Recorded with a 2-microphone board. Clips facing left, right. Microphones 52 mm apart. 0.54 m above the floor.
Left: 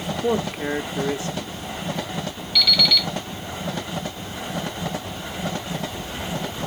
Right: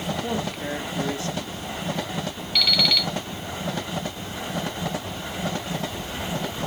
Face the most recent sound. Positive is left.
turn(degrees=-45)  # may be behind; listen again after turning